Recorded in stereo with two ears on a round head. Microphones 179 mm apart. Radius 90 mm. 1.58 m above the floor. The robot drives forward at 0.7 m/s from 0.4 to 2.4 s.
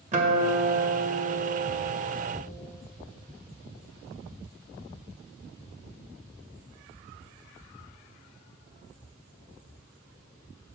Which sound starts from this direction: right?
A guitar, at 0.1 s.